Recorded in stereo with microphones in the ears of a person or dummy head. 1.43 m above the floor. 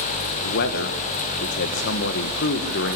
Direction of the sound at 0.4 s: 60° left (ahead or behind).